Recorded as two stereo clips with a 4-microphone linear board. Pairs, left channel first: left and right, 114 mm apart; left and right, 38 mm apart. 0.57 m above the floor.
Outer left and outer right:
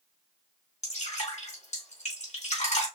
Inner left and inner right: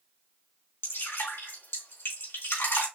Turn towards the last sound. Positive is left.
turn(degrees=85)